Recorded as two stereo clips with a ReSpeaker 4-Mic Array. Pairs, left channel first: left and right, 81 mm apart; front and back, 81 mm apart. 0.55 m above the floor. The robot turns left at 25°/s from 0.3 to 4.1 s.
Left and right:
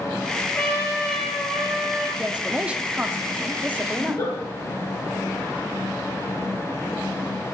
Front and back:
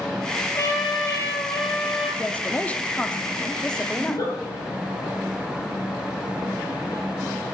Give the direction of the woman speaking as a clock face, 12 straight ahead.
1 o'clock.